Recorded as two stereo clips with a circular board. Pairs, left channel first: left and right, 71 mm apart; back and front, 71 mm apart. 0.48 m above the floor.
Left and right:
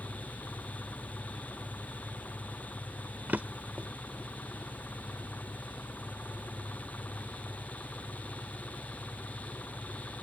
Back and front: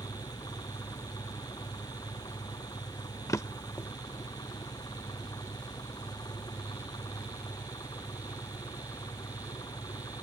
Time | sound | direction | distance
0.0 | an engine running | 155° left | ?
3.3 | a drawer | 150° right | ?